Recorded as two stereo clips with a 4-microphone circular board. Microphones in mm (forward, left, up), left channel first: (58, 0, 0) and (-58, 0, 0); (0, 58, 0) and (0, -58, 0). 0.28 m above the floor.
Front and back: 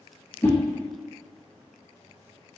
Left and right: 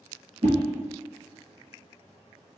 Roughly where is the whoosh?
Right.